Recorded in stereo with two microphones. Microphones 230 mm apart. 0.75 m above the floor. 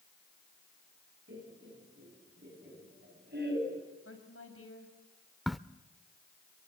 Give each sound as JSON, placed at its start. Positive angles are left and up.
{"t": 1.3, "sound": "laughter", "side_deg": -55, "distance_m": 7.5}
{"t": 4.0, "sound": "a woman speaking", "side_deg": 75, "distance_m": 4.5}
{"t": 5.5, "sound": "a crack", "side_deg": 0, "distance_m": 0.5}